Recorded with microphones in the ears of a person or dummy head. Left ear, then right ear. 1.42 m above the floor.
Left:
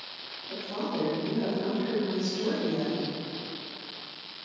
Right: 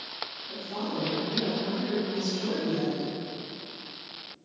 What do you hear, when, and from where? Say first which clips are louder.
0.5 s a woman speaking: left 4 dB; 20° left (ahead or behind), 1.2 m